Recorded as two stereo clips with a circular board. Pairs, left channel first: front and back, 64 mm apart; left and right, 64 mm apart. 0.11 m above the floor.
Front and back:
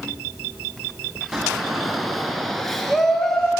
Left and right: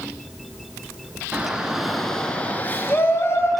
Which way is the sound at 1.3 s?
100° right.